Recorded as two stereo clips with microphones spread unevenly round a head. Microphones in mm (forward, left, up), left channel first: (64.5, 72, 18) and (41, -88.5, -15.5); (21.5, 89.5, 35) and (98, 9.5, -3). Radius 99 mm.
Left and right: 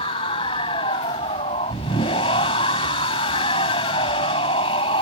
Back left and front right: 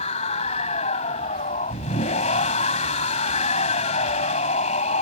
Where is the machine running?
140° left.